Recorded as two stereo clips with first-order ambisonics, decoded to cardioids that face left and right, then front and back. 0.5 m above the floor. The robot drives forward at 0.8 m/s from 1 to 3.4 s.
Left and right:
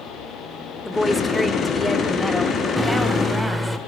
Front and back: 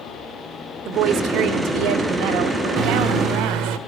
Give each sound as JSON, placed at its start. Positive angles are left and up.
{"t": 0.8, "sound": "a woman speaking", "azimuth_deg": 175, "distance_m": 1.7}
{"t": 2.8, "sound": "a microwave", "azimuth_deg": 175, "distance_m": 0.7}